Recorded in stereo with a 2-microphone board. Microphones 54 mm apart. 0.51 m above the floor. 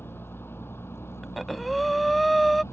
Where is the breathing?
Centre (ahead or behind).